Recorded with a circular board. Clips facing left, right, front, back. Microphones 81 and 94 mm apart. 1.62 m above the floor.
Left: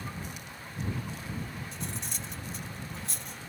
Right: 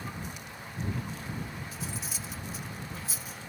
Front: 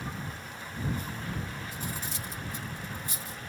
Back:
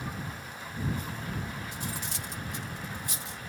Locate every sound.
1.7 s cutlery clinking: 175° right